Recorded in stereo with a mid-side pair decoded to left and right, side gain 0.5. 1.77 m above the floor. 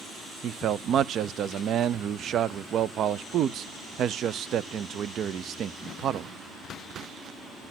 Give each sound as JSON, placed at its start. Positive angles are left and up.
{"t": 0.4, "sound": "a man speaking", "azimuth_deg": -60, "distance_m": 0.6}